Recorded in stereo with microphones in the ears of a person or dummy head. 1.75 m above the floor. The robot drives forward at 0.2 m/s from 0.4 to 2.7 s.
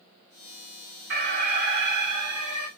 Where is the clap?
No clap in this recording.